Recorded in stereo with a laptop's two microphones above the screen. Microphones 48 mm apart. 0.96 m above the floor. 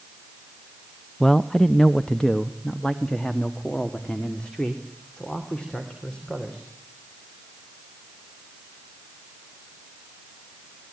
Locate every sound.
1.2 s a man speaking: 10° left (ahead or behind), 0.6 m; by 6.7 s 20° left (ahead or behind), 3.5 m